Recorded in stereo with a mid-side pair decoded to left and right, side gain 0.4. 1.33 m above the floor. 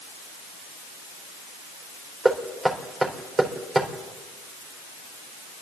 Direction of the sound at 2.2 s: 25° right.